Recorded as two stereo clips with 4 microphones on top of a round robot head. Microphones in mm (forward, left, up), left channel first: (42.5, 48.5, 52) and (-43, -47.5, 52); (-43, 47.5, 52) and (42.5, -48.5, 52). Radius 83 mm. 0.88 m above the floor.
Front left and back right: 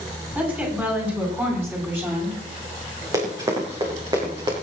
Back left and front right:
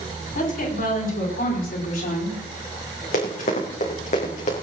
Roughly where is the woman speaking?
Behind left.